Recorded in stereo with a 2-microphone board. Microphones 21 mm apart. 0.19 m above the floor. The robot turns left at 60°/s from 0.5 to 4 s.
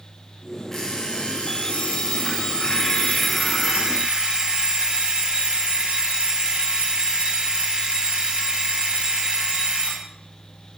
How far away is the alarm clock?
About 9 m.